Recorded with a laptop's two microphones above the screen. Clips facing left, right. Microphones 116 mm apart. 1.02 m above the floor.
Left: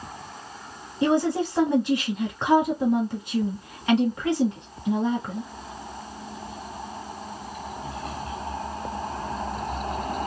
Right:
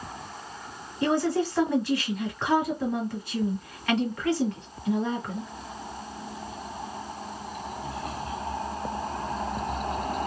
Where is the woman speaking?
20° left (ahead or behind), 1.3 m.